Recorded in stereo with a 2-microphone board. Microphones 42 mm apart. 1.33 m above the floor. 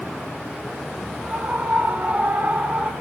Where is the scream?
35° right (ahead or behind), 4.5 m.